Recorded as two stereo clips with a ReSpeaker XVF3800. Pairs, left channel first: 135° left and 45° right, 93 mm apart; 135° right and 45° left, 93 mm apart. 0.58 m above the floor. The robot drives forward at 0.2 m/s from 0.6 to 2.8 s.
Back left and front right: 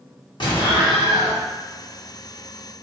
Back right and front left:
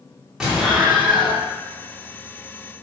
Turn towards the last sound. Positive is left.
turn(degrees=145)